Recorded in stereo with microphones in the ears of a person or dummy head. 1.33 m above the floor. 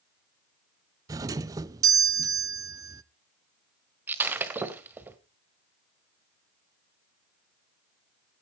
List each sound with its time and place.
1.1 s a doorbell: 20° right (ahead or behind), 0.5 m
4.1 s breaking glass: 10° right (ahead or behind), 1.1 m